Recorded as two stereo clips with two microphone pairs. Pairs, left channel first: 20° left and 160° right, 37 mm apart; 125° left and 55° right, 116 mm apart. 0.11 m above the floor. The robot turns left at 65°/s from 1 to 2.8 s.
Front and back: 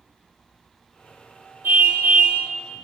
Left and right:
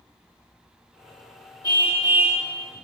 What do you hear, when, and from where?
1.6 s a car horn: straight behind, 6 m; by 2.4 s 135° left, 6 m